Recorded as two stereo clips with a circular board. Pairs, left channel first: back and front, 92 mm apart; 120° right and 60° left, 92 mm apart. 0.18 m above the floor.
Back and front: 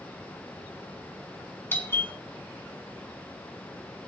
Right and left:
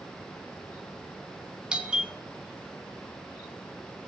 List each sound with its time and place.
1.7 s a doorbell: 135° left, 2 m